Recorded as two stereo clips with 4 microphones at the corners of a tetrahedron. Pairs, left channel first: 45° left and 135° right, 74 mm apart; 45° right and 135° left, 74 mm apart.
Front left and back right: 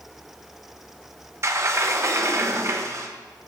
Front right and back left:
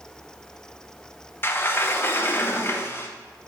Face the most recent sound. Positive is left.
turn(degrees=-95)